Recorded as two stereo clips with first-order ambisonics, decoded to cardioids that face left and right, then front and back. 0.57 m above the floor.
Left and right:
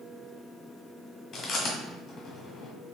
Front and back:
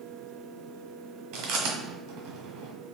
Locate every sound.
1.3 s chewing: 160° left, 1.2 m